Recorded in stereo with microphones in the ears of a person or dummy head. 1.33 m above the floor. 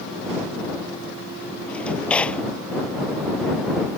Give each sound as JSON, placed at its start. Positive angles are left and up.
{"t": 1.7, "sound": "a drawer", "side_deg": 10}